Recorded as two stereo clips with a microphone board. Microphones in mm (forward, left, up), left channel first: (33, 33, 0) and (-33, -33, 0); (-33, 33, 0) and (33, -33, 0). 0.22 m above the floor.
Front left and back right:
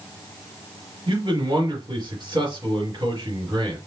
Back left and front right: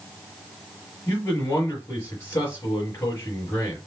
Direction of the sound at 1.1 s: 170° right.